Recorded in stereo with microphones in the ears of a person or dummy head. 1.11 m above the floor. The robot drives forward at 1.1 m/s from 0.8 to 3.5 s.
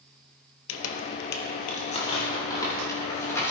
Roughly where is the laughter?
No laughter in this recording.